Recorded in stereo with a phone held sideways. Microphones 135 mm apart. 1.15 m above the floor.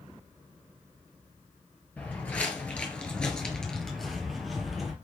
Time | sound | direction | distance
2.0 | footsteps | 10° left (ahead or behind) | 1.3 m